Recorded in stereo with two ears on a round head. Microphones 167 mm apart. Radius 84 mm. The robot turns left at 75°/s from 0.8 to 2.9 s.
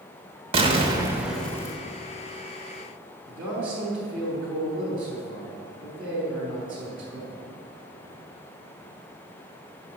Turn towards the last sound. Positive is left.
turn(degrees=-5)  # may be behind; listen again after turning